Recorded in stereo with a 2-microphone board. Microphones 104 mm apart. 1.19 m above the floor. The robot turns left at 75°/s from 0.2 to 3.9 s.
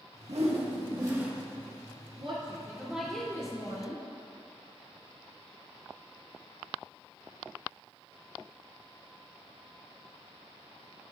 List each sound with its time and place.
0.3 s a whoosh: 90° right, 1.3 m; by 1.3 s 170° right, 1.3 m
2.2 s a woman speaking: 115° right, 2.5 m; by 4.0 s 115° left, 2.5 m